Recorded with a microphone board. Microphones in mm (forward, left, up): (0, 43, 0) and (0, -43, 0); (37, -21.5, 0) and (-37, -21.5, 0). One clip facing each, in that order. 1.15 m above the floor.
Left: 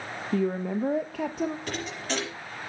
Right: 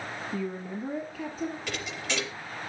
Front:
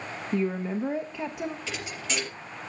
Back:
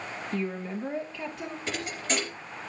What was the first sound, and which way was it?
A woman speaking, 75° left.